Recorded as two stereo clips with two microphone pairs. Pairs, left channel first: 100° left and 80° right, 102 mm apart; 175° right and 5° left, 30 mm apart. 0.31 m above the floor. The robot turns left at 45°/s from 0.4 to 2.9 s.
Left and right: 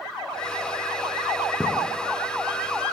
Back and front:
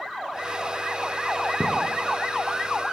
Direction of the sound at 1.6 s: 15° right.